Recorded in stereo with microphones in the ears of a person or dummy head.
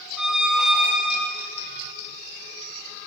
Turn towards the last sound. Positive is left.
turn(degrees=-5)  # may be behind; listen again after turning